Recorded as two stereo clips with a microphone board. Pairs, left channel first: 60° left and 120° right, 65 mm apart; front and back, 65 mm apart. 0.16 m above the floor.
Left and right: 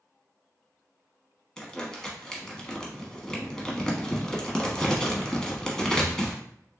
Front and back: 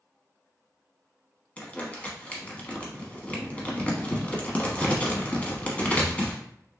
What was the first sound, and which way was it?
Crumpling, straight ahead.